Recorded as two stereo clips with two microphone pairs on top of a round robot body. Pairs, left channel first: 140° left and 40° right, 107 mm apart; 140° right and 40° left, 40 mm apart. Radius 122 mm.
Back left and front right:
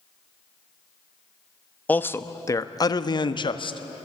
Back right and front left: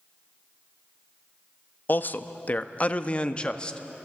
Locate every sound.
1.9 s a man speaking: 160° right, 1.2 m; by 4.0 s 145° left, 1.7 m